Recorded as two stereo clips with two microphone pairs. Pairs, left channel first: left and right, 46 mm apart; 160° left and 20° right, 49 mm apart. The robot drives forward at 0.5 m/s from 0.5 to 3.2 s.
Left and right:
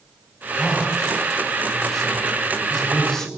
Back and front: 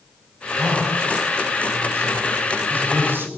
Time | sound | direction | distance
0.6 | a man speaking | 5° left | 3.5 m